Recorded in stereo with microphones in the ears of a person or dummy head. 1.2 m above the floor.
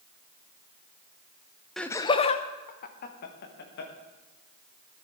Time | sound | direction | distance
1.8 | laughter | centre (ahead or behind) | 0.5 m